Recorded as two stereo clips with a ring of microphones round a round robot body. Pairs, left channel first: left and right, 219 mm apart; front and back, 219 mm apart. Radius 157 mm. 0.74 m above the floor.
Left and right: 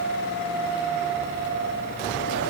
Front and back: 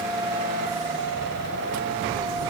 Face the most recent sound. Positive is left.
No sound to turn to.